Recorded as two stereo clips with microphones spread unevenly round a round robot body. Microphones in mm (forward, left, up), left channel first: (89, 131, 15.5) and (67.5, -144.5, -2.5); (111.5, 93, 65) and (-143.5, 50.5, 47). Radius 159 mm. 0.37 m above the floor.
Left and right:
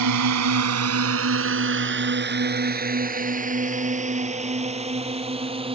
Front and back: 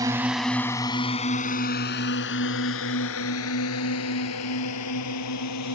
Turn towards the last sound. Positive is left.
turn(degrees=-25)